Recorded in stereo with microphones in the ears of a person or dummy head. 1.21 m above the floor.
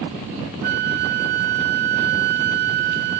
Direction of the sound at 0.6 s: 50° right (ahead or behind).